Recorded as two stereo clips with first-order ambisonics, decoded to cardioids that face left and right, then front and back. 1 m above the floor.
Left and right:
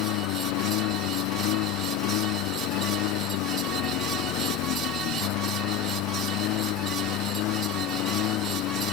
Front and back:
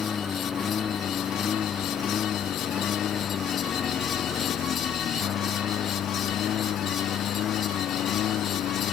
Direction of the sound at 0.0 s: 70° left.